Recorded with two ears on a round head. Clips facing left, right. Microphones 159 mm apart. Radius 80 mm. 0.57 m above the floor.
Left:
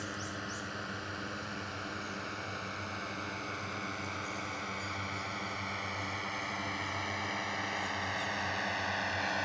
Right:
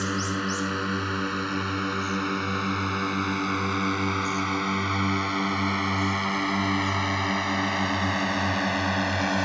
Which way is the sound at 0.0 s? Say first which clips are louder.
Right 13 dB; 75° right (ahead or behind).